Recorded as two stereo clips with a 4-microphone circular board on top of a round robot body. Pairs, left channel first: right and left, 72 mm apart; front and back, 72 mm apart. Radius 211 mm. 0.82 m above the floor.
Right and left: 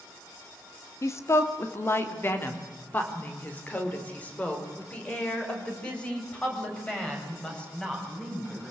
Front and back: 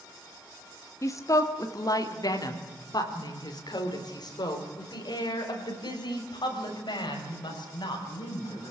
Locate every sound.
1.0 s a woman speaking: 45° right, 2.5 m; by 8.7 s 10° right, 8.5 m